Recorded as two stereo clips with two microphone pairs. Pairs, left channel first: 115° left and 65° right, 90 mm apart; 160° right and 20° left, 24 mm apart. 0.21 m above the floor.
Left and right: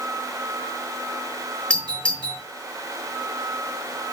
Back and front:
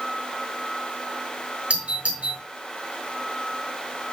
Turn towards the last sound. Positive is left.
turn(degrees=40)